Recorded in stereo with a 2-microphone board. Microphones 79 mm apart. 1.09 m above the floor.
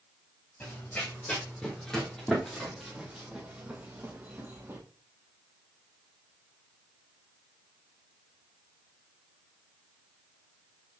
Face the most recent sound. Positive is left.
turn(degrees=-30)  # may be behind; listen again after turning